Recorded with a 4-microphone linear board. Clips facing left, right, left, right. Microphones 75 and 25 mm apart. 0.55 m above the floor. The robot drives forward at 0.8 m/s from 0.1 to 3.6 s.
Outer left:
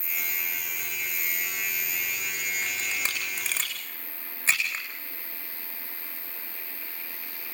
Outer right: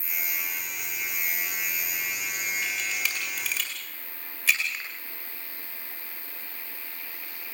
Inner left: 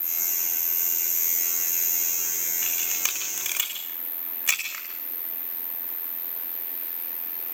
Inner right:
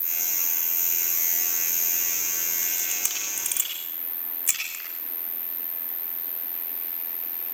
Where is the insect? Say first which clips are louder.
Even, inner right 1 dB; 60° left (ahead or behind), 1.2 m; by 7.5 s 20° left (ahead or behind), 3.5 m.